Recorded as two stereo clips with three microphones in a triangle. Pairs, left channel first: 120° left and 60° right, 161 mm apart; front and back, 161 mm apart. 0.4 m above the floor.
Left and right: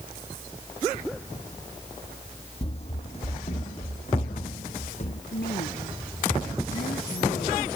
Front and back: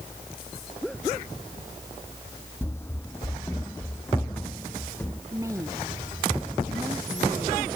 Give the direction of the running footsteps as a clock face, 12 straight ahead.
10 o'clock.